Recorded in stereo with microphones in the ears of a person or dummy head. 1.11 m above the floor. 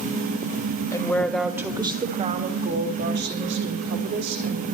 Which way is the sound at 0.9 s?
20° left (ahead or behind).